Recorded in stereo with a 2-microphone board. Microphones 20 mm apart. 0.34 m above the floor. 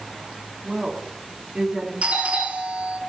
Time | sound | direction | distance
0.6 | a woman speaking | 20° right (ahead or behind) | 2.5 m
2.0 | a doorbell | 60° right (ahead or behind) | 8.5 m